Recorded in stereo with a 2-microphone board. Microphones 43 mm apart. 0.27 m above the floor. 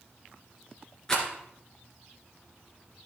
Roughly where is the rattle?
Centre.